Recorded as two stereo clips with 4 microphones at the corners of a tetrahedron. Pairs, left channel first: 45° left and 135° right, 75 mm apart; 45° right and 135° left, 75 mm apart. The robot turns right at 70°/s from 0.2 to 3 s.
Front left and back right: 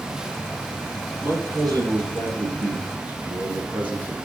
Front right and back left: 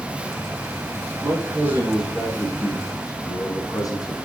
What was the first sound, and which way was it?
A man speaking, 165° left.